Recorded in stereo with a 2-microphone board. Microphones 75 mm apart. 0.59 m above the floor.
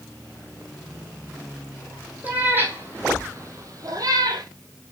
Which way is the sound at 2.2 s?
25° right (ahead or behind).